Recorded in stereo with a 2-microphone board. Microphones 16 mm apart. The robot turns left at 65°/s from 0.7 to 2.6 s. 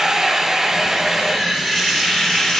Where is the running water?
140° right, 3.5 m; by 2.6 s 100° left, 3.5 m.